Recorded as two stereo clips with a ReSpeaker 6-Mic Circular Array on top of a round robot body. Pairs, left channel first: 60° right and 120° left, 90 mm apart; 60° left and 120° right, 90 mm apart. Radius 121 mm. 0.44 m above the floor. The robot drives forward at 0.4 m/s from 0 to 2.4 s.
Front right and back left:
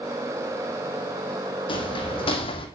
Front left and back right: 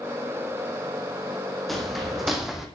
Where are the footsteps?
30° right, 2 m; by 2.7 s 35° right, 1.8 m.